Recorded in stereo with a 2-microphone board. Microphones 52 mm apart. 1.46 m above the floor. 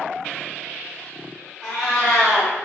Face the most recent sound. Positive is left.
turn(degrees=15)  # may be behind; listen again after turning